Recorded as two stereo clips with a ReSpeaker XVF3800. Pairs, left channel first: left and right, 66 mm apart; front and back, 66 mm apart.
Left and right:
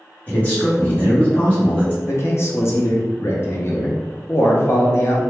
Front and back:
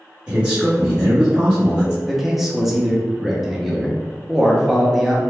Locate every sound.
0.3 s a man speaking: 115° left, 1.4 m
2.0 s a man speaking: 95° left, 0.6 m